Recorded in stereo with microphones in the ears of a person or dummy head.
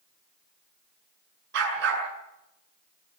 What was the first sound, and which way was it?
A dog barking, 70° right (ahead or behind).